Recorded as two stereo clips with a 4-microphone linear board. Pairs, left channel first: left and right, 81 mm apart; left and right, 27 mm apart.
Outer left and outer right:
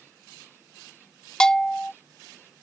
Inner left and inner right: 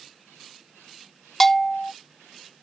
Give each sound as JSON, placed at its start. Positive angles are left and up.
{"t": 1.4, "sound": "a bell", "side_deg": 10}